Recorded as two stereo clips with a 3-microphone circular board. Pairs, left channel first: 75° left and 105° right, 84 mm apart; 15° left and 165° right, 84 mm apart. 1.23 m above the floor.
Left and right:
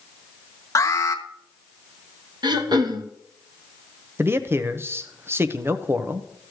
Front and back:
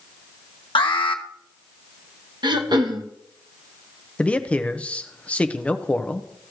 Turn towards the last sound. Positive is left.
turn(degrees=-55)